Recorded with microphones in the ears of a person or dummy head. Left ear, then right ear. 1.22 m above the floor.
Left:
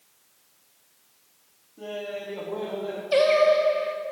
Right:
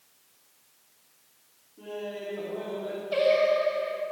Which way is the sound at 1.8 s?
70° left (ahead or behind).